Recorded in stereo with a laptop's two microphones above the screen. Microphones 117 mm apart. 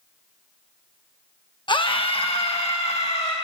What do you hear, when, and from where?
1.7 s a scream: 40° left (ahead or behind), 0.9 m; by 3.3 s 55° left (ahead or behind), 2.5 m